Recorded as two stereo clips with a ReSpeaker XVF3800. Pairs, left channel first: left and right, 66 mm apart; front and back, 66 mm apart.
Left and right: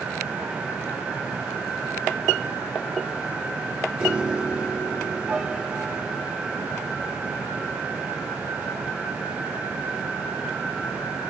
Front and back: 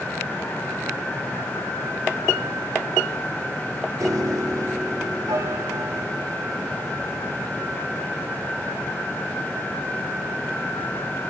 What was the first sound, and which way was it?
A piano, 165° right.